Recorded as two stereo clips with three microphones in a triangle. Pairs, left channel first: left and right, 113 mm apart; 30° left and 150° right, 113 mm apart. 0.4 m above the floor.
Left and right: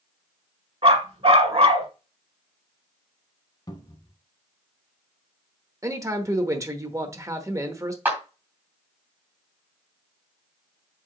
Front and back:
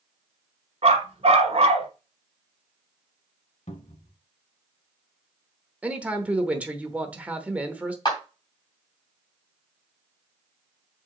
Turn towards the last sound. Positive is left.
turn(degrees=-20)